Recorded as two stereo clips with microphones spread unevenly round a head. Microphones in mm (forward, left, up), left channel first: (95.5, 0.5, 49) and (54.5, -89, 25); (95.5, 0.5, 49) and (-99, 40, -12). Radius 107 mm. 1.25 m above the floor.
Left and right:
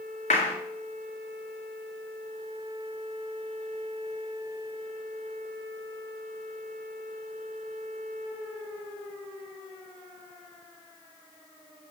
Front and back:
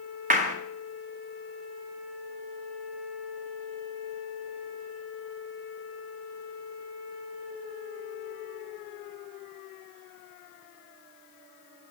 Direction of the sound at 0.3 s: 110° left.